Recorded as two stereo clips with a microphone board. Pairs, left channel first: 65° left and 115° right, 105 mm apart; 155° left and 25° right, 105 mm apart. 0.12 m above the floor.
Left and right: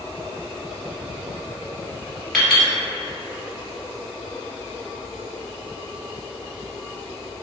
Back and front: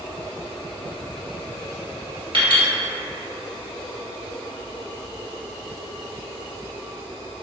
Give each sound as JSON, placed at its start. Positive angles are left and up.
{"t": 2.3, "sound": "a clink", "azimuth_deg": -20, "distance_m": 1.7}